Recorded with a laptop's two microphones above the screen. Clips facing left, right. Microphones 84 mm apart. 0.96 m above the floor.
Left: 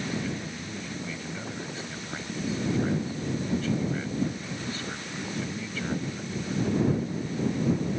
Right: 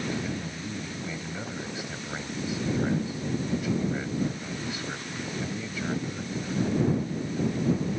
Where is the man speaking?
15° right (ahead or behind).